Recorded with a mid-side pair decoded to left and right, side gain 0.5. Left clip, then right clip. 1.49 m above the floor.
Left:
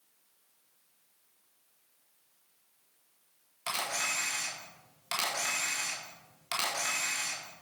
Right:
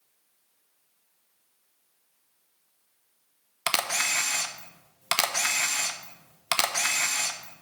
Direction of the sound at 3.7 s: 65° right.